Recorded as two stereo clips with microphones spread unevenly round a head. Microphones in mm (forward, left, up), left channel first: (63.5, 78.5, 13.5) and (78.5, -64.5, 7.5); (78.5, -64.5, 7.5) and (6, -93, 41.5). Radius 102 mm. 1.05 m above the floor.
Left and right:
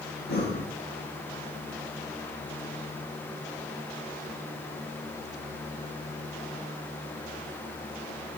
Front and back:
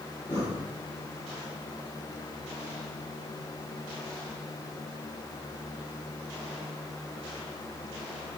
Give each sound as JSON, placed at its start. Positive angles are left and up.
{"t": 0.3, "sound": "breathing", "azimuth_deg": 100, "distance_m": 4.5}